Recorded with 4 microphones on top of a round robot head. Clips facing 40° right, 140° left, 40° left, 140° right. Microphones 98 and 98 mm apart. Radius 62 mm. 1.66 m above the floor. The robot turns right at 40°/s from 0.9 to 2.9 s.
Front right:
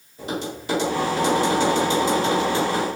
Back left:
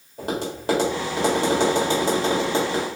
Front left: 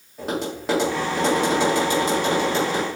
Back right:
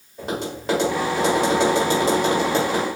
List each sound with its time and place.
0.2 s tapping: 130° left, 1.3 m; by 2.9 s 155° right, 1.3 m